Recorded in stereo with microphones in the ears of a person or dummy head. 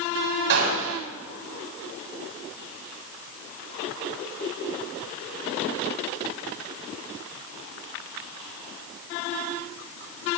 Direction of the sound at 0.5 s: 70° right (ahead or behind).